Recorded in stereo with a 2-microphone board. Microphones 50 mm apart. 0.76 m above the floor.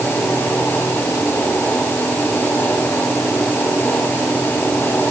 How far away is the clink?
No clink in this recording.